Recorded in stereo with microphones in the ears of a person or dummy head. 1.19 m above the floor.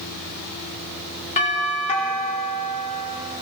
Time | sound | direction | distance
1.4 | a doorbell | 35° left (ahead or behind) | 4 m